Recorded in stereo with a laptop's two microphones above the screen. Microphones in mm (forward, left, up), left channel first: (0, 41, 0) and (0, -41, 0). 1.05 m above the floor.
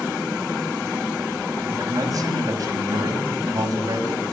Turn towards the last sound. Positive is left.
turn(degrees=-45)  # may be behind; listen again after turning